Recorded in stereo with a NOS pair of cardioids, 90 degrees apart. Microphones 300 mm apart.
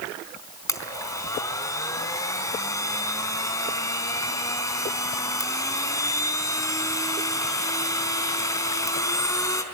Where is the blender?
10° left, 4 m.